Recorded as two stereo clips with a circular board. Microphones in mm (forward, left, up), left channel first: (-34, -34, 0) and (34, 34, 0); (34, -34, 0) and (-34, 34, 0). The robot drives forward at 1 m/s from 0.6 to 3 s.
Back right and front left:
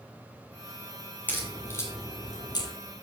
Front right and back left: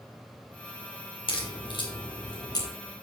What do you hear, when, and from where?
1.3 s a crack: 65° right, 3 m; by 2.7 s 95° right, 2.5 m